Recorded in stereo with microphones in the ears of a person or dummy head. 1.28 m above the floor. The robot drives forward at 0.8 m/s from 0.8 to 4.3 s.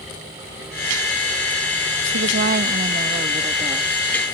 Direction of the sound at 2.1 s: 65° right (ahead or behind).